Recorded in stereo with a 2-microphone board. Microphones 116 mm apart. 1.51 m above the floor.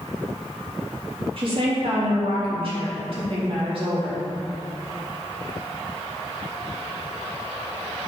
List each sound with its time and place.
1.4 s a woman speaking: 50° right (ahead or behind), 3.5 m